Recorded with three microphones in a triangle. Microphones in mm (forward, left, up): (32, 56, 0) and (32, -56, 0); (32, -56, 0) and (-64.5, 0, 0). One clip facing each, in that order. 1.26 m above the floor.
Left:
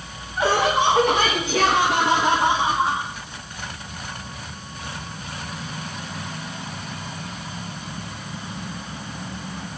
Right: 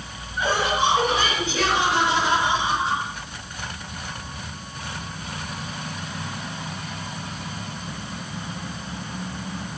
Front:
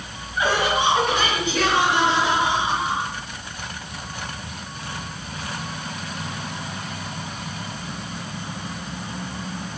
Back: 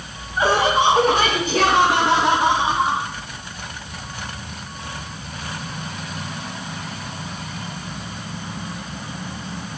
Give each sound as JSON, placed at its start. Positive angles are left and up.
{"t": 0.4, "sound": "laughter", "azimuth_deg": 95, "distance_m": 3.0}